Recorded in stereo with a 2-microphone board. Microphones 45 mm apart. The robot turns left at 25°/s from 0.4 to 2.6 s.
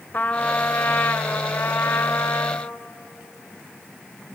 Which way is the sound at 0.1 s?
140° left.